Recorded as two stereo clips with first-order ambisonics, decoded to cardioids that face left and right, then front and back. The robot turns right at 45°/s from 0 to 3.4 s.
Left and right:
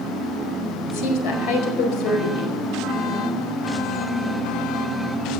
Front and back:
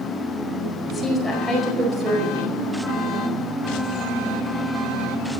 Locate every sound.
0.9 s a woman speaking: 65° left, 5 m; by 2.6 s 140° left, 5 m